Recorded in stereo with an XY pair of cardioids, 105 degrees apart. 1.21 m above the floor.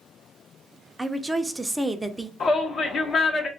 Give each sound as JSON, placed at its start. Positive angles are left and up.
{"t": 1.0, "sound": "a woman speaking", "azimuth_deg": -10, "distance_m": 0.6}
{"t": 2.4, "sound": "a shout", "azimuth_deg": 50, "distance_m": 1.0}